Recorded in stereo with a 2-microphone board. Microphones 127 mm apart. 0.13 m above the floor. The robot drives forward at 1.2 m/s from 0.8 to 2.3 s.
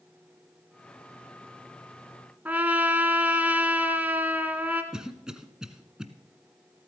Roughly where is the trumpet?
Centre.